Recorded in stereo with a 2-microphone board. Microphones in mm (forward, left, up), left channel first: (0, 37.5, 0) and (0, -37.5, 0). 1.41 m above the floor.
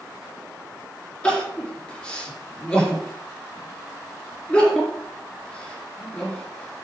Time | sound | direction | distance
1.2 | crying | 15° left (ahead or behind) | 4 m